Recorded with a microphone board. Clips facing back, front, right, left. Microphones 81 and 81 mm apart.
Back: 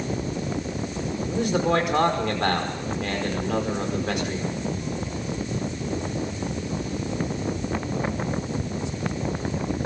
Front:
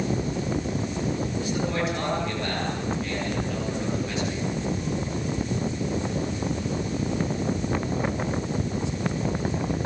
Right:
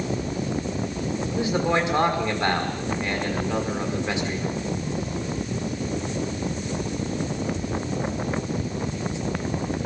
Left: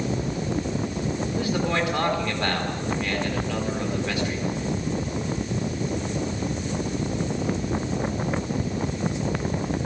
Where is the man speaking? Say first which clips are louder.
Back 5 dB, right 4 dB; 160° right, 5 m.